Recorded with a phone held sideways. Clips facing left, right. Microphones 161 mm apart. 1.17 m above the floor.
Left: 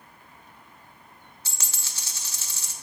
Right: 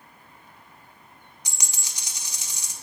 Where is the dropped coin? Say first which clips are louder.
Right 1 dB; 15° right (ahead or behind), 0.6 m.